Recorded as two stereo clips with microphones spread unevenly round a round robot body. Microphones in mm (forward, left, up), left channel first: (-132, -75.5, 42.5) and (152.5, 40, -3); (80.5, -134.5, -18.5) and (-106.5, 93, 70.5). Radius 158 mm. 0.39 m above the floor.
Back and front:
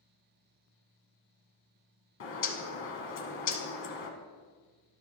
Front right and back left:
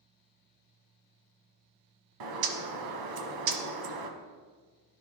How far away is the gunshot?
I don't hear a gunshot.